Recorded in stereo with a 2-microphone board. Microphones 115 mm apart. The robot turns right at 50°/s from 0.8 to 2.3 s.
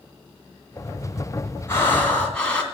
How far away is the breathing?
About 1.9 m.